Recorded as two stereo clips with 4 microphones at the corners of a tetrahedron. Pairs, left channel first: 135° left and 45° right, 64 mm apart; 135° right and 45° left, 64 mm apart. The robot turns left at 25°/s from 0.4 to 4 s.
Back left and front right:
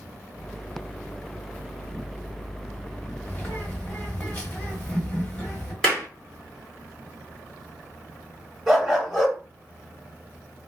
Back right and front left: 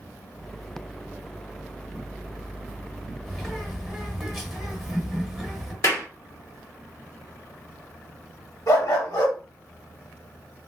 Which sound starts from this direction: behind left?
A bird, at 3.2 s.